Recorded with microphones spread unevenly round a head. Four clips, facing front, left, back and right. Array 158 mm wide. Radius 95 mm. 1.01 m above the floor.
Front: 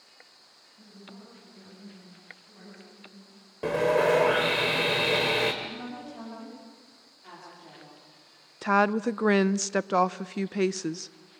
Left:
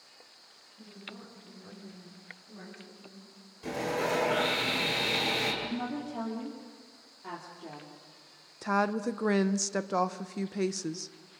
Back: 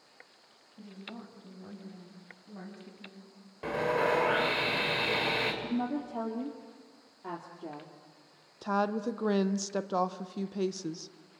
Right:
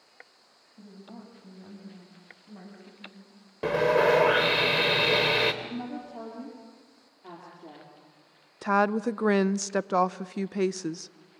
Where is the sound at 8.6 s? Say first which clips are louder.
Right 4 dB, front 6 dB; 30° right, 0.6 m.